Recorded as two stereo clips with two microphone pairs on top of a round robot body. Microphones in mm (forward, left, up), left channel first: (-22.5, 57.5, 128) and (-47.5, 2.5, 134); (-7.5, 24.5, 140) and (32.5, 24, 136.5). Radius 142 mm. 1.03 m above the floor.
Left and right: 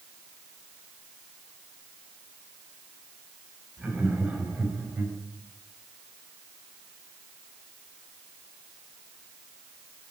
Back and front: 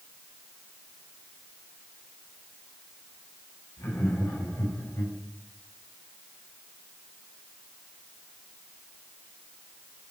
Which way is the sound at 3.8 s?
175° left.